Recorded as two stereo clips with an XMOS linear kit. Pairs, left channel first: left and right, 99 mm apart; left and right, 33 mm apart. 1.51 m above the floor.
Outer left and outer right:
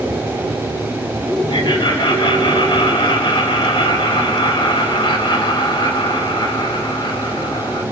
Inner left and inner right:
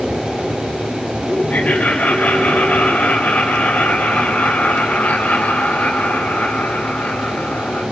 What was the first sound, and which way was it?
Laughter, 45° left (ahead or behind).